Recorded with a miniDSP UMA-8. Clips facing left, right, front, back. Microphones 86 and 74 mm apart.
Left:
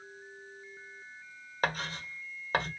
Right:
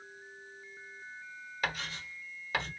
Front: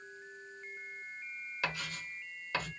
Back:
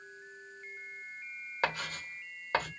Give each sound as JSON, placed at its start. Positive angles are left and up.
{"t": 1.6, "sound": "writing", "azimuth_deg": 135, "distance_m": 1.6}